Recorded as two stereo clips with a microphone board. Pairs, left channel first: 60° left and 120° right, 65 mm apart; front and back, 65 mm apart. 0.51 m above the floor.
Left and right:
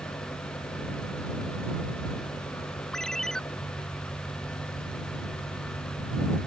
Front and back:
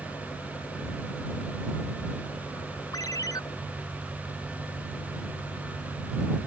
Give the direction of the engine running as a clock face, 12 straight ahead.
11 o'clock.